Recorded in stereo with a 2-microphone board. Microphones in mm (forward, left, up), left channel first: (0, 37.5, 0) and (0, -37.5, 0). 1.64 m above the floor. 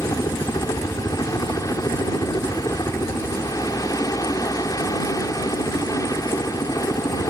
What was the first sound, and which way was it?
A helicopter, 50° left (ahead or behind).